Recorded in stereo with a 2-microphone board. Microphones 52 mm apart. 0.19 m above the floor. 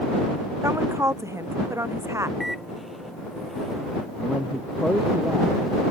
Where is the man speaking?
Centre (ahead or behind).